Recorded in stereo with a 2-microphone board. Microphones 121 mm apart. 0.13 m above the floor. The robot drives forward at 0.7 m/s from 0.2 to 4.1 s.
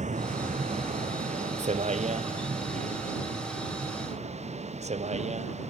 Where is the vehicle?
75° right (ahead or behind); by 5.7 s 65° right (ahead or behind).